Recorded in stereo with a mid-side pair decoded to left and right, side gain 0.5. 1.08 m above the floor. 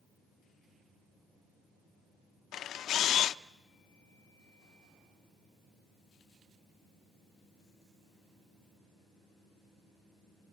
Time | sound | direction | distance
2.5 | a camera shutter | 65° left | 0.6 m